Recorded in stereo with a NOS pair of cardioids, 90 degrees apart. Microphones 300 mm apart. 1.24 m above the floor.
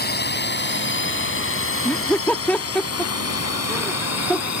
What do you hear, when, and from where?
0.0 s a drone: 30° left; by 4.6 s 60° left
1.9 s laughter: 5° left